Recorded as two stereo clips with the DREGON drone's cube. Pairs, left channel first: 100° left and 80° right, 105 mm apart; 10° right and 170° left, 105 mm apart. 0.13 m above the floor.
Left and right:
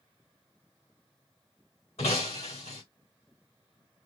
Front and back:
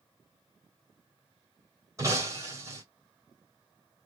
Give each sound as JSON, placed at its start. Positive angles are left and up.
{"t": 2.0, "sound": "breaking glass", "azimuth_deg": 110, "distance_m": 3.5}